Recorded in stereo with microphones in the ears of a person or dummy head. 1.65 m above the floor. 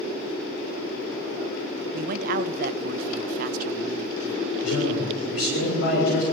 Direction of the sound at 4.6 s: 75° left (ahead or behind).